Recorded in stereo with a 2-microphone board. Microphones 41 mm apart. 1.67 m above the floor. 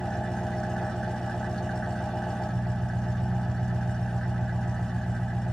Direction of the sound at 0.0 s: 15° left (ahead or behind).